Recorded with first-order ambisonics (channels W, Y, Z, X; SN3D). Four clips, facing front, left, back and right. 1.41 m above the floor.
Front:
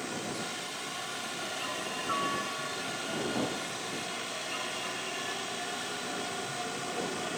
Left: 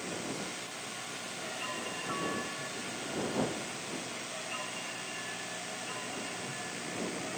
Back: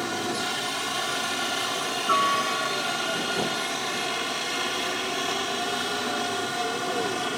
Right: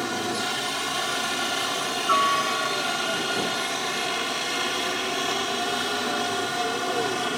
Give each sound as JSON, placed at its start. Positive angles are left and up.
{"t": 0.0, "sound": "a helicopter", "azimuth_deg": -125}